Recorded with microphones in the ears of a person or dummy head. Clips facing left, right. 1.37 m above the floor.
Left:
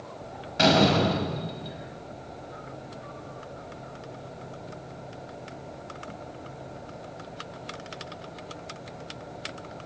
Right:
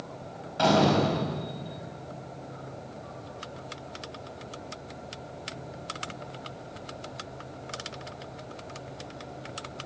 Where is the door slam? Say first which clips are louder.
Left 1 dB; 25° left (ahead or behind), 5.5 m.